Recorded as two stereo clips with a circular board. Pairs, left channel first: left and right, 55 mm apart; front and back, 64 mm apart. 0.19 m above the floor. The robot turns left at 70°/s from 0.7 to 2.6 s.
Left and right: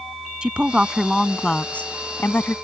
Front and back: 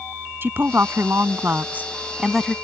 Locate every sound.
0.4 s a woman speaking: 150° right; by 2.5 s 80° left